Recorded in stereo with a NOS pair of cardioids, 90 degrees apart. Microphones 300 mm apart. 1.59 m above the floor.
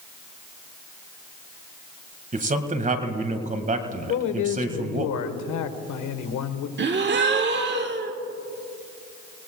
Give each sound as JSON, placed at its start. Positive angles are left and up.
{"t": 2.3, "sound": "a man speaking", "azimuth_deg": -25, "distance_m": 1.9}
{"t": 4.1, "sound": "a man speaking", "azimuth_deg": 65, "distance_m": 1.4}
{"t": 6.8, "sound": "a gasp", "azimuth_deg": -35, "distance_m": 1.4}